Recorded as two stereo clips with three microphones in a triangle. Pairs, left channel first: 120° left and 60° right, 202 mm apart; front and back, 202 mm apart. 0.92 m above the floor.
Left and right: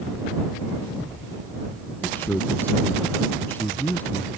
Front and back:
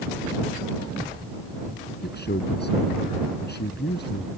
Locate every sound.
2.0 s a man speaking: 40° left